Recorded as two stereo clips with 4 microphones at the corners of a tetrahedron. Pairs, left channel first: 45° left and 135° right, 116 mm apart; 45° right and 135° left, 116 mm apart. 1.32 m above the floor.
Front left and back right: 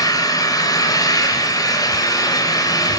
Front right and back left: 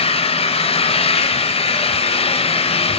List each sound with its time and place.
0.0 s an engine running: 15° right, 3.5 m